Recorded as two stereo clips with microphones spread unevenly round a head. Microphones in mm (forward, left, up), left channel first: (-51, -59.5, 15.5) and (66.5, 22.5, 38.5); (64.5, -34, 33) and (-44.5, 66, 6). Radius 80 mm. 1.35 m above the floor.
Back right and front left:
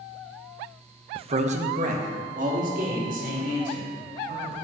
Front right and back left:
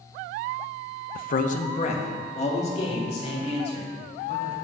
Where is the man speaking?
15° right, 0.7 m; by 4.5 s 5° left, 6 m.